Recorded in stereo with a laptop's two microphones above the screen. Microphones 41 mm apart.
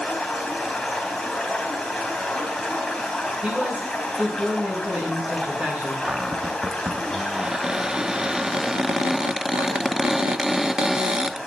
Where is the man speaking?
25° right (ahead or behind), 10 m.